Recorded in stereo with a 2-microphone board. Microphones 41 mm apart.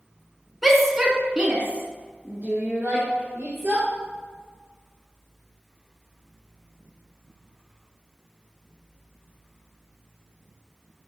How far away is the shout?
About 1.2 m.